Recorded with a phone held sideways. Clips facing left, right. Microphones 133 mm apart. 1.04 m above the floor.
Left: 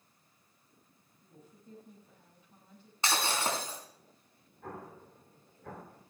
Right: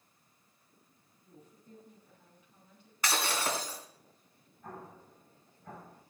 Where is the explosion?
85° left, 3 m.